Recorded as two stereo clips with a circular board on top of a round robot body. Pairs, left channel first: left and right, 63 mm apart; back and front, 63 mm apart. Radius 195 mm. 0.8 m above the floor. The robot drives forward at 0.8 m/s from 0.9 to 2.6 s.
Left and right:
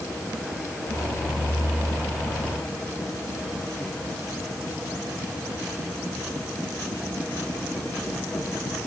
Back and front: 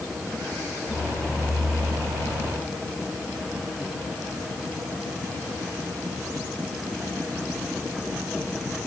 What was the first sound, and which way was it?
Only background noise.